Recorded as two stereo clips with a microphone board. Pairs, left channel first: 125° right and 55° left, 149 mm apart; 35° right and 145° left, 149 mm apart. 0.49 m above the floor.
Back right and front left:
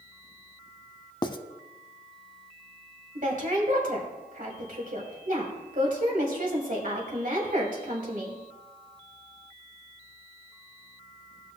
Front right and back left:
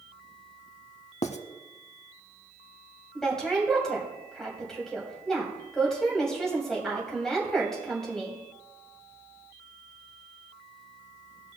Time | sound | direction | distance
1.2 | writing | 70° right | 0.5 m
3.1 | a woman speaking | 50° left | 2.5 m